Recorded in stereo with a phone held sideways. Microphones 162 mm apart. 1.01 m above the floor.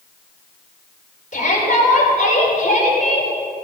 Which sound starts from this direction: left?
A shout, at 1.3 s.